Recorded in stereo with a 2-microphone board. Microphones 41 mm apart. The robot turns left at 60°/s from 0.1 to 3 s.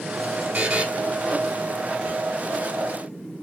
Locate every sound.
0.5 s a buzzer: 30° right (ahead or behind), 1.0 m